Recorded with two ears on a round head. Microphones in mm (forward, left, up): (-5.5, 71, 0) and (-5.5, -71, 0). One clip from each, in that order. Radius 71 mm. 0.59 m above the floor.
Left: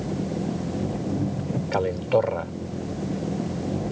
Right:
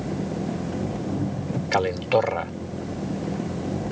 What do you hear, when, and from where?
0.0 s an engine running: 20° right (ahead or behind)
1.7 s a man speaking: 55° right (ahead or behind)